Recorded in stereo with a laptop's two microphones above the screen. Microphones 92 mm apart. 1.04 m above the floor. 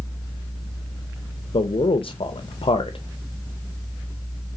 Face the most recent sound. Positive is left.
turn(degrees=80)